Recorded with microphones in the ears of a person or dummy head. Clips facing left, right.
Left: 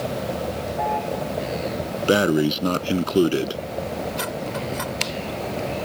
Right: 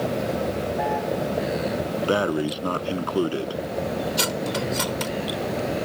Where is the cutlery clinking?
50° right (ahead or behind).